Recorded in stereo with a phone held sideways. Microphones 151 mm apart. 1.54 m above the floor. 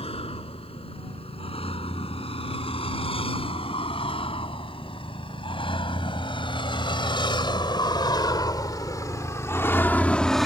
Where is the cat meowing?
I don't hear a cat meowing.